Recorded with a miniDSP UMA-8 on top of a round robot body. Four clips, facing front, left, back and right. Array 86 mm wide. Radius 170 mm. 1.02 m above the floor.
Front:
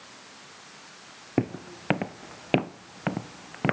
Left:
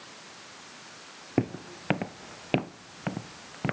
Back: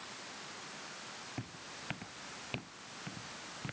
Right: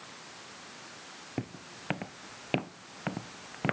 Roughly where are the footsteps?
Ahead left.